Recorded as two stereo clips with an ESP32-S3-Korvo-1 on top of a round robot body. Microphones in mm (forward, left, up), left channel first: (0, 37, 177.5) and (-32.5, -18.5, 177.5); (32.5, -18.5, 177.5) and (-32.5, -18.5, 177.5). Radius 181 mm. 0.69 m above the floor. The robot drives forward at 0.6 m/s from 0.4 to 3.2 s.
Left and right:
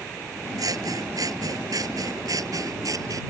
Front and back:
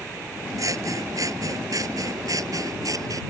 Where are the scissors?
145° right; by 3.2 s 150° right.